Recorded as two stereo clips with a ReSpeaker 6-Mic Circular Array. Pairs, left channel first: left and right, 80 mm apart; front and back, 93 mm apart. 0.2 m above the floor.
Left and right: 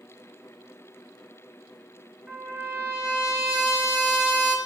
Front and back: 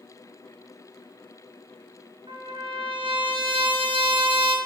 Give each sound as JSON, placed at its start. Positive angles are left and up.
{"t": 2.3, "sound": "a trumpet", "azimuth_deg": -170, "distance_m": 0.7}